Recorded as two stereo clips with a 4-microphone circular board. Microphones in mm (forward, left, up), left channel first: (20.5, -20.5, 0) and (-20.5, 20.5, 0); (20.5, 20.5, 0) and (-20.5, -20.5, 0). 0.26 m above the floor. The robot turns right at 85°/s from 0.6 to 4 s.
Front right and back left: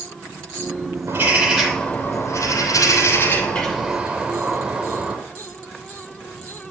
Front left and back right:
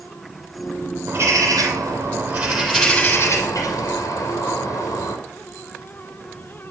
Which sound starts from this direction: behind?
A bird, at 1.1 s.